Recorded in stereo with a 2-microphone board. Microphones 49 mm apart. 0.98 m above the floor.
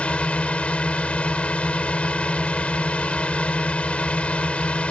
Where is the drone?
25° left (ahead or behind).